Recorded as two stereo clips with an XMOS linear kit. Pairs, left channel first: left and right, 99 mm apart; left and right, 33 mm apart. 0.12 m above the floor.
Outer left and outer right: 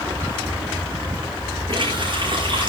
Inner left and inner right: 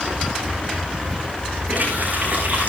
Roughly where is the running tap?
Right.